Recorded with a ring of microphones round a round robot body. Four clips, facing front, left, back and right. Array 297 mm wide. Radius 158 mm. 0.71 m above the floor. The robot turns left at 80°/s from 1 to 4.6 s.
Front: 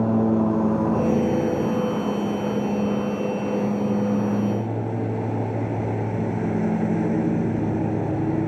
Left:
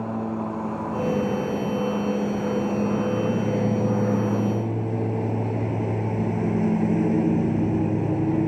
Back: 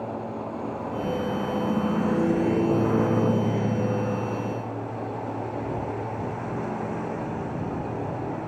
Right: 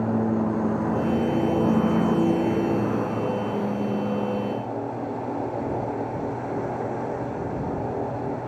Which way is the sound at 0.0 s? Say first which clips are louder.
Right 4 dB, front 12 dB; 20° right.